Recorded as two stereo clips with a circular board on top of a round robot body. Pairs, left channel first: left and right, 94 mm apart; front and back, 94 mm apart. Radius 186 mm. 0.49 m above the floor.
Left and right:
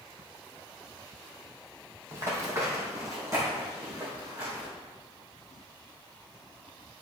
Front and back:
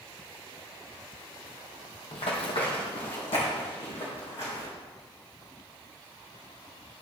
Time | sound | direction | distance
2.1 | running footsteps | 25° right | 1.4 m